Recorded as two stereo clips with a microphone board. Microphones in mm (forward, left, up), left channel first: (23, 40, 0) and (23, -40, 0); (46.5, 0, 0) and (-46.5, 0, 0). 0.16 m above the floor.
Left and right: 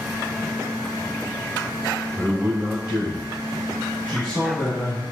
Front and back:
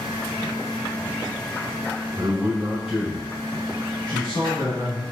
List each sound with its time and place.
2.2 s a man speaking: 130° right, 1.3 m; by 5.0 s 45° left, 1.3 m